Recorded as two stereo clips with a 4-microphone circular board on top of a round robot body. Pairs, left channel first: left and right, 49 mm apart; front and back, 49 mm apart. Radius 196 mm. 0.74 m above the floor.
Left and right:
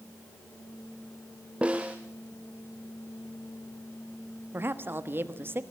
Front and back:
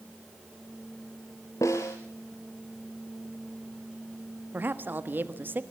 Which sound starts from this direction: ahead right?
A snare drum, at 1.6 s.